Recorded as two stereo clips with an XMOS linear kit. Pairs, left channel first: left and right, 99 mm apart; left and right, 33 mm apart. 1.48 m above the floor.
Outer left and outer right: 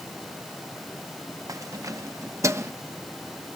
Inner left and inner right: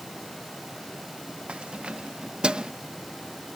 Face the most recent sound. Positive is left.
turn(degrees=-30)  # may be behind; listen again after turning